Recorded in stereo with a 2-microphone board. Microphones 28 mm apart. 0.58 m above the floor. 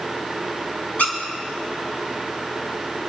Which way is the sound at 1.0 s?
65° left (ahead or behind).